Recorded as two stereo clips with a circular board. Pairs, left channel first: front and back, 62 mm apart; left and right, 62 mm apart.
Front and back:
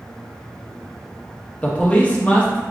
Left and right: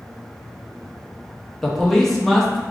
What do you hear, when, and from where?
1.6 s a man speaking: 10° left, 0.8 m